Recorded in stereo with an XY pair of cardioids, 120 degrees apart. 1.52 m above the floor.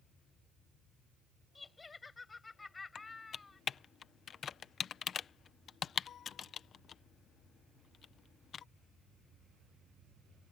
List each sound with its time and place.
1.6 s laughter: 20° left
3.0 s typing on a keyboard: 45° left